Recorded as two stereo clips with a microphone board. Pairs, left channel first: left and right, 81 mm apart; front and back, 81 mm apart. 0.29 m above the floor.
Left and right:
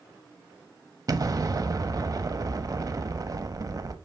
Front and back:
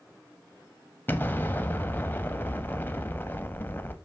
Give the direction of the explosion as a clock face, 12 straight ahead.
2 o'clock.